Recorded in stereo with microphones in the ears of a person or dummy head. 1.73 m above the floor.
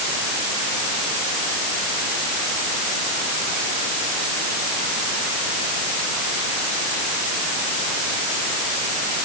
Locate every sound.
Only background noise.